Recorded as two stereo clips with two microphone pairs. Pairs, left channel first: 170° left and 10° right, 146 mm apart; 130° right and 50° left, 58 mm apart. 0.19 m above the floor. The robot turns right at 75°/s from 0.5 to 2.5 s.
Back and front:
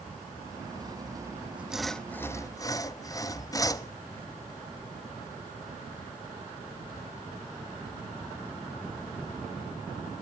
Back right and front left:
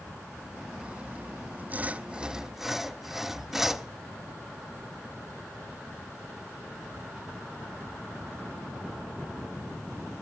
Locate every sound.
0.8 s sawing: straight ahead, 0.6 m; by 3.9 s 125° left, 0.6 m